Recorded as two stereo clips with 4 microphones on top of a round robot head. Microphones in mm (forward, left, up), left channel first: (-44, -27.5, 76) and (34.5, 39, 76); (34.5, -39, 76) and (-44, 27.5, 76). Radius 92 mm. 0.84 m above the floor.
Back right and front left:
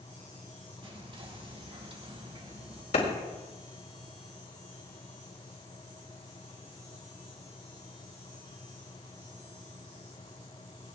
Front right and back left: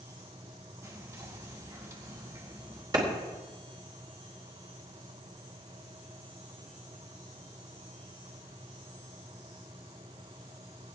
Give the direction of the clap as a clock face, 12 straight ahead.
6 o'clock.